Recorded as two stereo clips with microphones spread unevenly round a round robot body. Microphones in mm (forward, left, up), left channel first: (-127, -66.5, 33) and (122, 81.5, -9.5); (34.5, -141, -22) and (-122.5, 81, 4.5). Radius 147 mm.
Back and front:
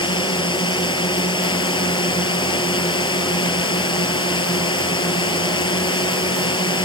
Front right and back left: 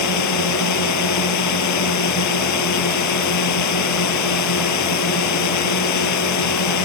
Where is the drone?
75° right.